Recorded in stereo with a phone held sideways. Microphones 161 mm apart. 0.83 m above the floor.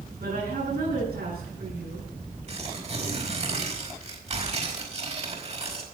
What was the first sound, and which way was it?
A woman speaking, 75° right (ahead or behind).